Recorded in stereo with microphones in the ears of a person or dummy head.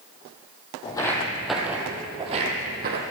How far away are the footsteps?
About 1.9 m.